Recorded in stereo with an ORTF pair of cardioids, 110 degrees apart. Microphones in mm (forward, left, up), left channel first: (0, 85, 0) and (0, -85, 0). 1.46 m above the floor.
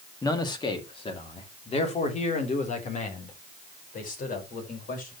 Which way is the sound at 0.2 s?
20° left.